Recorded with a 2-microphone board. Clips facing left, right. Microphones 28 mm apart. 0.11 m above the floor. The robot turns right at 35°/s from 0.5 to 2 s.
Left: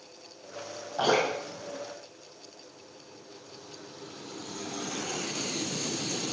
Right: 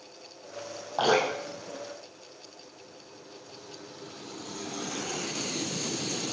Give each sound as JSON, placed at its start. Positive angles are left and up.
{"t": 1.0, "sound": "dripping", "side_deg": -35, "distance_m": 4.0}